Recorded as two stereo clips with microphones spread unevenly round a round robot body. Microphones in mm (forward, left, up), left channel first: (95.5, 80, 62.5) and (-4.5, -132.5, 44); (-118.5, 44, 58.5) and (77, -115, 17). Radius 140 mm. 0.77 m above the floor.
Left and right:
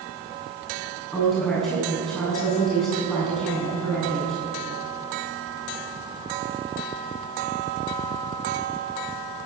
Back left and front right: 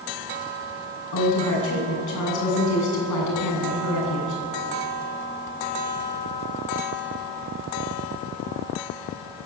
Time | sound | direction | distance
1.1 | a woman speaking | 155° left | 8.5 m